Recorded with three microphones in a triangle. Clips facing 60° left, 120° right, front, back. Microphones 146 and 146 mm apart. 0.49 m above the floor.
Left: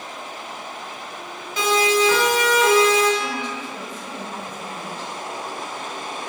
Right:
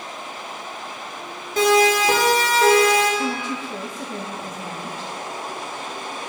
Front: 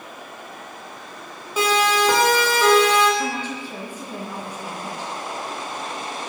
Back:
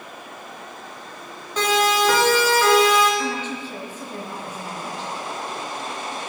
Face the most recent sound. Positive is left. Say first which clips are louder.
# right 2 dB, even
turn(degrees=-75)